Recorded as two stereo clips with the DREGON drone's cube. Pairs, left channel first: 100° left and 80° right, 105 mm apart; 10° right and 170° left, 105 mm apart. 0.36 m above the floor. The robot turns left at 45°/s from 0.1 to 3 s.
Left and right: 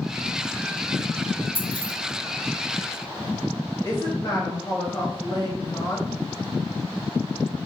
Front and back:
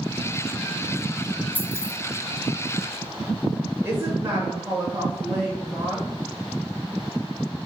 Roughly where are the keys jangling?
Ahead left.